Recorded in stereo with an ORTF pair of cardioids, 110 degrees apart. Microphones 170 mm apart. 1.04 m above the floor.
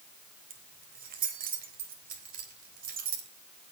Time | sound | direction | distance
0.5 | keys jangling | 65° right | 3.5 m